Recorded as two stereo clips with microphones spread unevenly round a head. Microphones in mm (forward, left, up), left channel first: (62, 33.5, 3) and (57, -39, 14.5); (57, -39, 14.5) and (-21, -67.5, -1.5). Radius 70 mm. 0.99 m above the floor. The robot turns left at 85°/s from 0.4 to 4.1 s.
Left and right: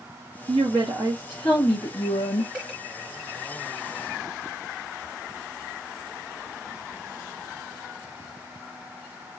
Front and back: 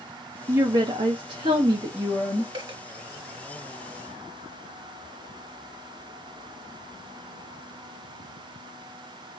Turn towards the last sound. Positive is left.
turn(degrees=60)